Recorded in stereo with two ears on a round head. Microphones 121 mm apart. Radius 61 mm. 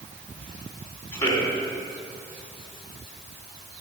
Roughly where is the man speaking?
Left.